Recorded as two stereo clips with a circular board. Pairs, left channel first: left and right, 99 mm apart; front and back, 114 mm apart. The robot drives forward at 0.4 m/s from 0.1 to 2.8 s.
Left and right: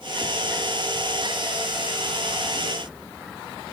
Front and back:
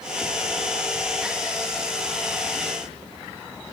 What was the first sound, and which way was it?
Only background noise.